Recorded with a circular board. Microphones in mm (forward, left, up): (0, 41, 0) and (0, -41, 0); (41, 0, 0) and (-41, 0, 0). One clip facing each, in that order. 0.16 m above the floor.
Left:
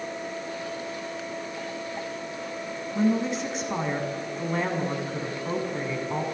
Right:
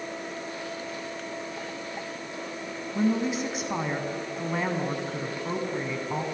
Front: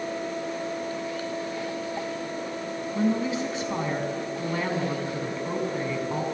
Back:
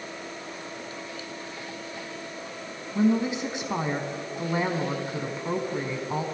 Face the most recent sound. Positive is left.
turn(degrees=-170)